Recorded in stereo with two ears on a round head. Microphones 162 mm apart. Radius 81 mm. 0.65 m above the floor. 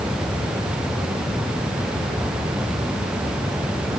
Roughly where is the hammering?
I don't hear hammering.